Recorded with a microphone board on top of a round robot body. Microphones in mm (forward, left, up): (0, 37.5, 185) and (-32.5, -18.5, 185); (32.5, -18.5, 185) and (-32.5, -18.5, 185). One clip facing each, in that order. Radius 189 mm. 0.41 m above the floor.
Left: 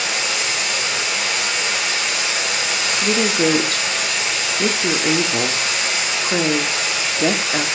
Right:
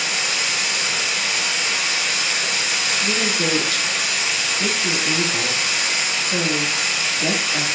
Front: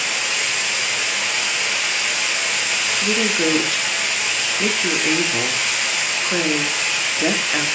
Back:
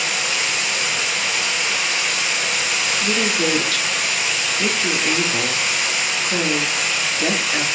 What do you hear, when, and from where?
0.0 s running water: 85° left, 3.5 m
3.0 s a woman speaking: 70° left, 1.5 m